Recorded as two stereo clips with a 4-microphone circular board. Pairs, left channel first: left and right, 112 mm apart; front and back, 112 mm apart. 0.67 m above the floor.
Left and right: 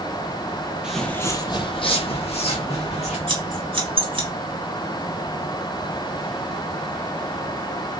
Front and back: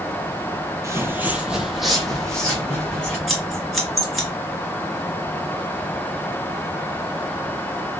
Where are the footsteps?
165° right, 0.7 m; by 3.2 s 80° left, 2 m.